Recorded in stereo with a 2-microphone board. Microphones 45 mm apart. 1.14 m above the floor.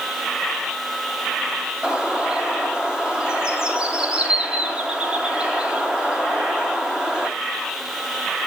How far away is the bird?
About 7.5 m.